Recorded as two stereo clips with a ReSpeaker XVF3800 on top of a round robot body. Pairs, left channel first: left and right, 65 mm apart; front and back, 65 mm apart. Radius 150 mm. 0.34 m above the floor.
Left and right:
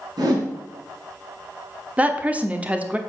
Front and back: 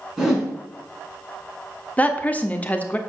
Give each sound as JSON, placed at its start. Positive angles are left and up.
{"t": 0.2, "sound": "a whoosh", "azimuth_deg": -95, "distance_m": 3.5}
{"t": 2.0, "sound": "a woman speaking", "azimuth_deg": -45, "distance_m": 1.4}